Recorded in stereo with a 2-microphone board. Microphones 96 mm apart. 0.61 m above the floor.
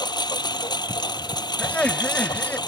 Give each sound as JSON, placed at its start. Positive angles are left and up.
{"t": 0.0, "sound": "a lawn mower", "side_deg": 50}
{"t": 1.6, "sound": "laughter", "side_deg": 15}